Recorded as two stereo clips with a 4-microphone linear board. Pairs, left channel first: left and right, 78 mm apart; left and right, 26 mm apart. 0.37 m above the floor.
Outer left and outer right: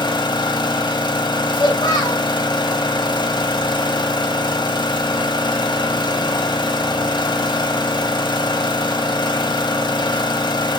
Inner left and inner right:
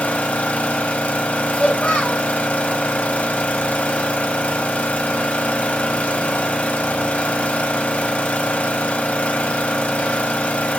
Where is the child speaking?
55° left (ahead or behind), 1.6 m.